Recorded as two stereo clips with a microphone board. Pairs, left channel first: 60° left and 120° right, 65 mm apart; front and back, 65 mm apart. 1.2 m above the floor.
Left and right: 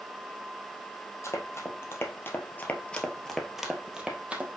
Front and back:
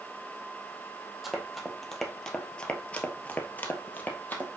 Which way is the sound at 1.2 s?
90° left.